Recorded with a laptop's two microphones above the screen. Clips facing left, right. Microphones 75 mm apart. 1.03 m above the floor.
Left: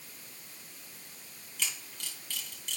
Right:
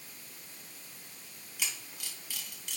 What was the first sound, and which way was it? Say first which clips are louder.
A camera shutter: left 1 dB; 10° right (ahead or behind).